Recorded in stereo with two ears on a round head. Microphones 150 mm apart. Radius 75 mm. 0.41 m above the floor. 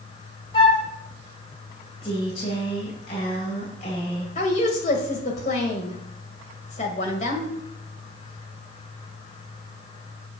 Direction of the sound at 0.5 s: 30° left (ahead or behind).